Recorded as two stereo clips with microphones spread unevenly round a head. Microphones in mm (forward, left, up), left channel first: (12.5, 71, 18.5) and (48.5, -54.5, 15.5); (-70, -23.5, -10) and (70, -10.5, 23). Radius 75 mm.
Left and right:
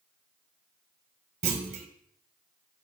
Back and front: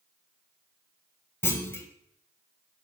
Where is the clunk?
110° right, 0.9 m.